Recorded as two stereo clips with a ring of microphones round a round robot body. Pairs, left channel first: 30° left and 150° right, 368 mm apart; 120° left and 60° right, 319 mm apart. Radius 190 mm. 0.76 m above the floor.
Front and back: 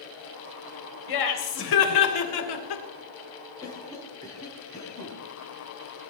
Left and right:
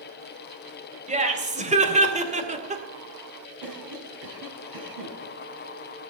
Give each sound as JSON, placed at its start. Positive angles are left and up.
{"t": 1.1, "sound": "laughter", "azimuth_deg": 5, "distance_m": 3.5}
{"t": 3.6, "sound": "a cough", "azimuth_deg": -50, "distance_m": 5.5}